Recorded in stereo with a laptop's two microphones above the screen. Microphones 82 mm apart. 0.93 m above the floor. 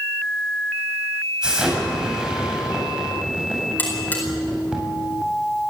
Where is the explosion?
10° right (ahead or behind), 7 m.